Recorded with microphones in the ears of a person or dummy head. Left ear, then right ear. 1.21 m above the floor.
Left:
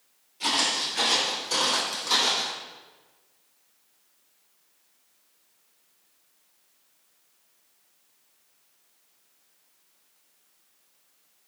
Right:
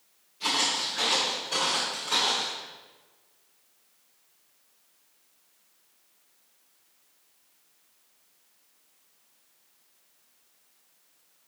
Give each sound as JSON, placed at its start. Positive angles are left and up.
{"t": 0.4, "sound": "footsteps", "side_deg": 30, "distance_m": 1.6}